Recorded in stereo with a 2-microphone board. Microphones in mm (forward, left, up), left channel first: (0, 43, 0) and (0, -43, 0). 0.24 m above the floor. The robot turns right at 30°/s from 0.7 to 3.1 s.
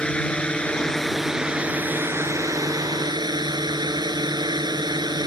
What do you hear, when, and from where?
0.0 s a drone: 170° left; by 5.3 s 120° right